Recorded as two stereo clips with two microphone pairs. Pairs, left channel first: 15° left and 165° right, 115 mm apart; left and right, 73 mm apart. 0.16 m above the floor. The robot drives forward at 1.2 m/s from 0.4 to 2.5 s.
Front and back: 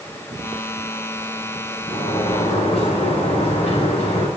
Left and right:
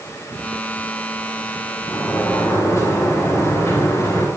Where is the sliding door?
35° left, 10 m; by 4.3 s 40° left, 9 m.